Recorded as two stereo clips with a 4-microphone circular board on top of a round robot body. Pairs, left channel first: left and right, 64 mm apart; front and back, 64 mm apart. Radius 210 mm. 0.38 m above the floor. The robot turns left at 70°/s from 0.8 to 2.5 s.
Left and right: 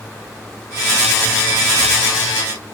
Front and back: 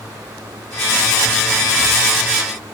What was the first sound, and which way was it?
Only background noise.